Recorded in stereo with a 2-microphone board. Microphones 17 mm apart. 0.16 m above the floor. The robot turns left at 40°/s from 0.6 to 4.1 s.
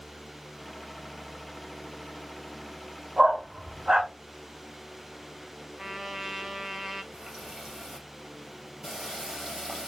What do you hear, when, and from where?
3.2 s a dog barking: 50° right (ahead or behind), 2.5 m; by 4.1 s 85° right, 2.5 m
5.8 s a trumpet: 25° right (ahead or behind), 0.7 m
7.1 s a running tap: 45° right (ahead or behind), 2.5 m